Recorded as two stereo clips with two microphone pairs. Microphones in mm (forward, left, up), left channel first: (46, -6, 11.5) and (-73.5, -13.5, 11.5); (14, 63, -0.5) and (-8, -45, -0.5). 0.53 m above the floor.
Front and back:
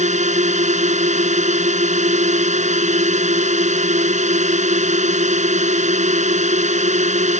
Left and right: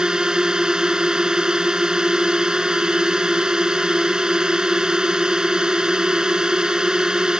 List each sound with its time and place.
0.0 s a drone: 175° left